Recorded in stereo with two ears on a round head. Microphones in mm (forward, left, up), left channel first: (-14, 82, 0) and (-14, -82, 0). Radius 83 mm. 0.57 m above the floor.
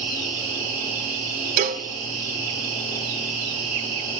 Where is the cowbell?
45° right (ahead or behind), 0.7 m.